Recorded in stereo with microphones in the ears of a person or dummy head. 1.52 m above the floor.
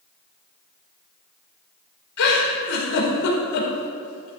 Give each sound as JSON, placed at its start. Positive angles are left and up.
{"t": 2.2, "sound": "a giggle", "side_deg": 90, "distance_m": 2.5}